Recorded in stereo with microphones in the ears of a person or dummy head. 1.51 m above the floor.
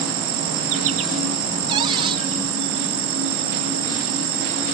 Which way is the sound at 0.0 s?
80° right.